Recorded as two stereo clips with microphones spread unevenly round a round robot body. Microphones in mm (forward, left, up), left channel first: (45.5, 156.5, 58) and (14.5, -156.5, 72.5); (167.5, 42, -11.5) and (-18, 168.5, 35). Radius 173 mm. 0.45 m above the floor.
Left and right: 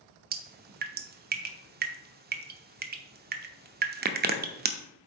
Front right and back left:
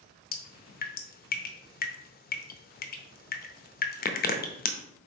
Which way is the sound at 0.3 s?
40° right.